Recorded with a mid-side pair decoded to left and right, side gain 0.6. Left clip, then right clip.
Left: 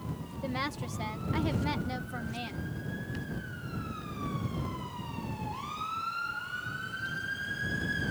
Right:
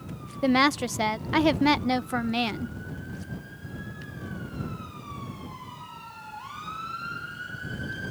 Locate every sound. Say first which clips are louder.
0.4 s a woman speaking: right 13 dB; 60° right